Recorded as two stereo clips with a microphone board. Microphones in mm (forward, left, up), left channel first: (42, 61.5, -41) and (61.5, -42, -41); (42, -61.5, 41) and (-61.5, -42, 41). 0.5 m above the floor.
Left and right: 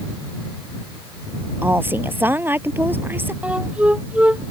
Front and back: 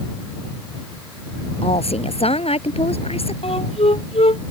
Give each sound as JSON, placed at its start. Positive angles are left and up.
{"t": 1.6, "sound": "a woman speaking", "azimuth_deg": -10}
{"t": 3.4, "sound": "a flute", "azimuth_deg": 0}